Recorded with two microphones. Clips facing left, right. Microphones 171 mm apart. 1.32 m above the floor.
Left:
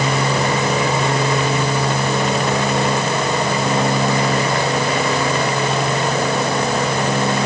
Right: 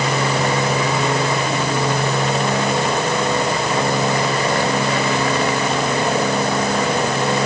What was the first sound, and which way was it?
Only background noise.